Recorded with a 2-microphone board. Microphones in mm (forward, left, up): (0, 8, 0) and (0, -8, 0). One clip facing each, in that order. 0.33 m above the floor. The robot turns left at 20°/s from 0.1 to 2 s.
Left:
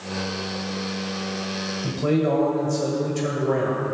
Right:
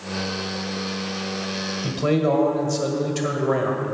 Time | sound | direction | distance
1.8 | a man speaking | 35° right (ahead or behind) | 1.5 m